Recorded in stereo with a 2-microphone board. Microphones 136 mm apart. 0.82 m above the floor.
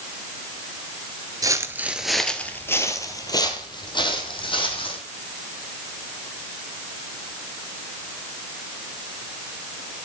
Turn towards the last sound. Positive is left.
turn(degrees=40)  # may be behind; listen again after turning